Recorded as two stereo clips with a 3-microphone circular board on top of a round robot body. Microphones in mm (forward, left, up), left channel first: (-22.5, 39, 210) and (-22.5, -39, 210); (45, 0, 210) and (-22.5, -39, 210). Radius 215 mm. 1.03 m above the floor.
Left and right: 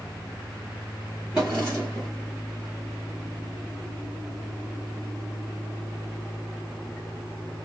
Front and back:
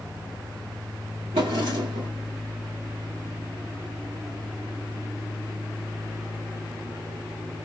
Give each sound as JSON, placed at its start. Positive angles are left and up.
{"t": 1.3, "sound": "a drawer", "azimuth_deg": -170, "distance_m": 0.6}